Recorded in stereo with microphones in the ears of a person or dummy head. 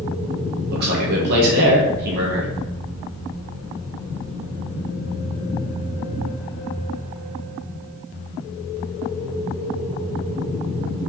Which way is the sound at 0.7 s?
55° right (ahead or behind).